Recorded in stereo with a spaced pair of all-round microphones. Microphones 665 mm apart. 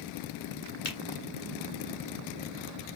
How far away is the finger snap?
About 0.8 m.